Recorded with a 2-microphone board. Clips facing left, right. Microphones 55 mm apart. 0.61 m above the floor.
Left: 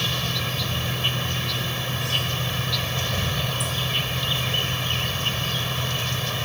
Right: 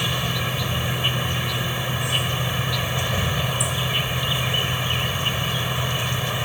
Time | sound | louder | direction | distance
0.0 | an insect | right 2 dB | 15° right (ahead or behind) | ?